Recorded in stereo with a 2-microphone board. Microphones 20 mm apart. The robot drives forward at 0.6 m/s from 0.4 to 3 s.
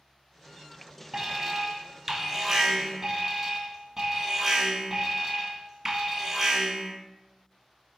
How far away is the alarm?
About 0.7 m.